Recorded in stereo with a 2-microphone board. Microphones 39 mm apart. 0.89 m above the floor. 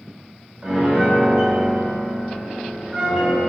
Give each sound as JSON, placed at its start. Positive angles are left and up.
{"t": 0.6, "sound": "a piano", "side_deg": -20, "distance_m": 1.9}